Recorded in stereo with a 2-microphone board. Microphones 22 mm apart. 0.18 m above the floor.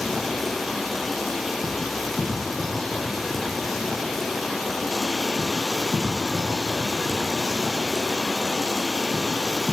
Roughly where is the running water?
Centre.